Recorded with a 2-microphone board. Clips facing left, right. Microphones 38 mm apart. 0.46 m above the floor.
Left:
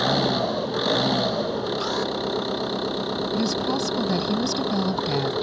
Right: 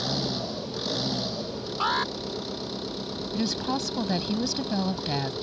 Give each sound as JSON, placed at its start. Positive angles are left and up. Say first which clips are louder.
{"t": 0.0, "sound": "an engine running", "louder": "left 8 dB", "side_deg": 50}
{"t": 1.8, "sound": "an alarm", "louder": "even", "side_deg": -35}
{"t": 3.3, "sound": "a woman speaking", "louder": "left 2 dB", "side_deg": -10}